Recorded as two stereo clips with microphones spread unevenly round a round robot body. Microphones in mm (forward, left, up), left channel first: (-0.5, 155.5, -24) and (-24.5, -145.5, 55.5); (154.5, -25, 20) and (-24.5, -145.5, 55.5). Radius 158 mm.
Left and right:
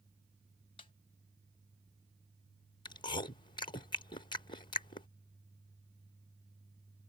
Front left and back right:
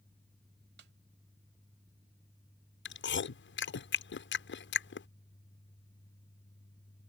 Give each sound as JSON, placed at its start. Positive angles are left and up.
{"t": 0.8, "sound": "a snare drum", "azimuth_deg": 155}
{"t": 2.9, "sound": "chewing", "azimuth_deg": 15}